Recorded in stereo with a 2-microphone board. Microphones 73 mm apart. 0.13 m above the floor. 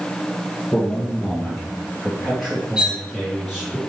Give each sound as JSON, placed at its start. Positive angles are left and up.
{"t": 0.7, "sound": "a man speaking", "side_deg": 10, "distance_m": 2.0}
{"t": 2.8, "sound": "cutlery clinking", "side_deg": -10, "distance_m": 1.6}